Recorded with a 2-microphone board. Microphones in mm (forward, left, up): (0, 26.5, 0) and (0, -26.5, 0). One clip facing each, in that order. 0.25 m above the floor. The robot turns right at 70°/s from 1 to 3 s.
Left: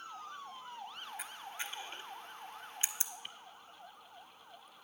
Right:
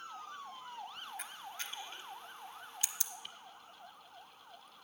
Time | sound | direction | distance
1.2 | a camera shutter | 5° left (ahead or behind) | 0.7 m